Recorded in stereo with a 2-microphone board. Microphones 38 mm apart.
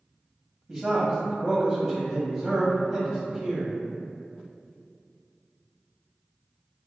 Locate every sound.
0.7 s a man speaking: 5° right (ahead or behind), 1.2 m